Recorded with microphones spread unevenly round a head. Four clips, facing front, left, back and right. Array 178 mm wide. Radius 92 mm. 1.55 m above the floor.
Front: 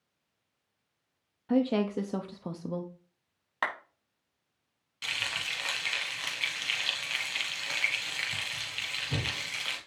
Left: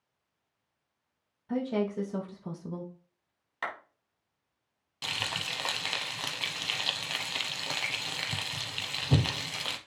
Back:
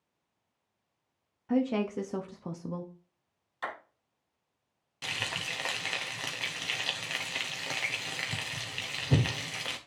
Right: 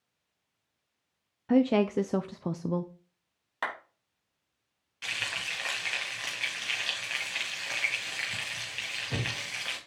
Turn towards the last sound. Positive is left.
turn(degrees=130)